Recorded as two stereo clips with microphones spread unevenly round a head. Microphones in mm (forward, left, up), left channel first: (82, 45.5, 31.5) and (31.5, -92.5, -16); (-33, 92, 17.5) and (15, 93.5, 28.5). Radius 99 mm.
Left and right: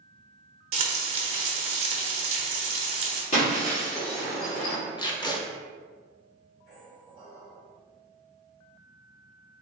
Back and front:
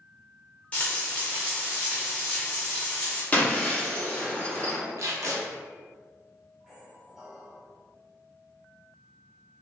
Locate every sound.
0.7 s frying: 120° right, 0.9 m
3.3 s breaking glass: 120° left, 1.5 m
5.0 s tape being pulled: straight ahead, 1.0 m
6.7 s a squeak: 80° left, 1.7 m